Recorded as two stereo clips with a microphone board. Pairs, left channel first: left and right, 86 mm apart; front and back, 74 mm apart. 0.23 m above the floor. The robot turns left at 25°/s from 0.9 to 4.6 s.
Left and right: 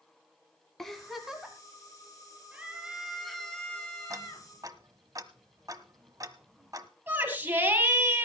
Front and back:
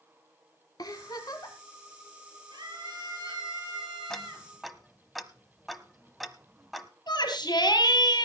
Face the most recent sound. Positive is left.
turn(degrees=-25)